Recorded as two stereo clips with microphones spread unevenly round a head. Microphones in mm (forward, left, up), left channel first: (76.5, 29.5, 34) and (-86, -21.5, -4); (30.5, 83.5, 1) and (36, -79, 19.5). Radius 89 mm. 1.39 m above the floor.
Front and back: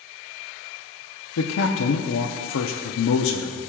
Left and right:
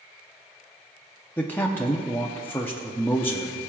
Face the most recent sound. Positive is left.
turn(degrees=15)